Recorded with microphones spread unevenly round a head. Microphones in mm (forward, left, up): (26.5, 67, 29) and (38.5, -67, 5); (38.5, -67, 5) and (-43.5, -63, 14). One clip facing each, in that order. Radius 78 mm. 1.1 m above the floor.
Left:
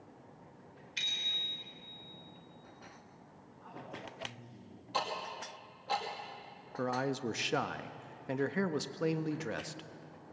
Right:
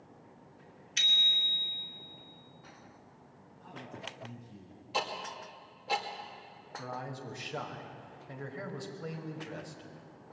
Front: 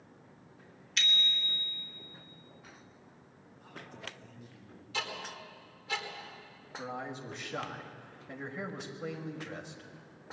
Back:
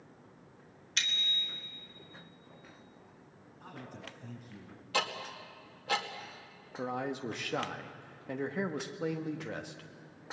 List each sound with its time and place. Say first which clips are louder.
1.0 s a bicycle bell: right 6 dB, front 3 dB; 135° right, 2.5 m
3.6 s a man speaking: right 1 dB, back 1 dB; 150° right, 7.5 m
4.9 s ticking: right 1 dB, back 4 dB; 160° right, 2.5 m
6.8 s a man speaking: left 7 dB, back 5 dB; 115° left, 1.3 m